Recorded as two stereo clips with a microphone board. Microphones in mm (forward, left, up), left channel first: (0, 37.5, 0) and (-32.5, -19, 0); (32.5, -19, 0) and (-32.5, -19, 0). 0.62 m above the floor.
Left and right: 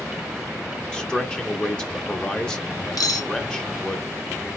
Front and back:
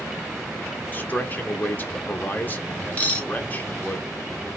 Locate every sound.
0.9 s a man speaking: 5° right, 0.5 m
3.0 s cutlery clinking: 65° left, 0.6 m